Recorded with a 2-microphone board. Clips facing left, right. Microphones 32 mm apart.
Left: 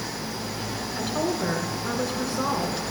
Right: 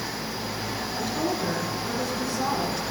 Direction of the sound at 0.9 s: 35° left (ahead or behind).